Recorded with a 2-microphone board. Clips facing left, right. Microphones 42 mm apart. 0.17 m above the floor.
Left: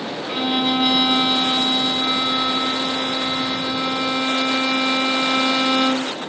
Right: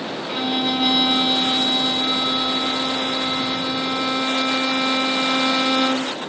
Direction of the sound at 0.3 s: 15° left (ahead or behind).